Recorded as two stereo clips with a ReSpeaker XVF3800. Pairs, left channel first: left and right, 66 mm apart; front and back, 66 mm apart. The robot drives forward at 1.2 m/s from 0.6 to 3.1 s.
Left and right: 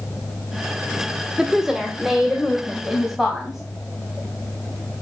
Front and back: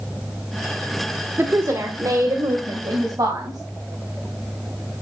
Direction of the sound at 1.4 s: 165° right.